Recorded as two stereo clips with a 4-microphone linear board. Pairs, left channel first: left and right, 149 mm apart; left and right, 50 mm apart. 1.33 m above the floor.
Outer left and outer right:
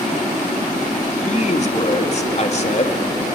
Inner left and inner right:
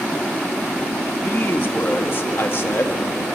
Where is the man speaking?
45° left (ahead or behind), 2.5 m.